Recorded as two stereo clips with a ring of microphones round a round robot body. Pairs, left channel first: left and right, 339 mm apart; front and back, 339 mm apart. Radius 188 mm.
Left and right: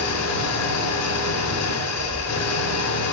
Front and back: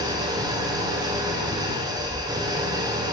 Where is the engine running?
105° left, 1.2 m.